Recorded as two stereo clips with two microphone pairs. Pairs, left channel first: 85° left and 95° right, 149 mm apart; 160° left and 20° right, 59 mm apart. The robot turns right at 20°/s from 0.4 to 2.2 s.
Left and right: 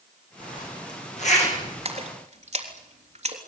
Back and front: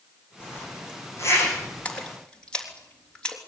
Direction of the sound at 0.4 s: 105° left.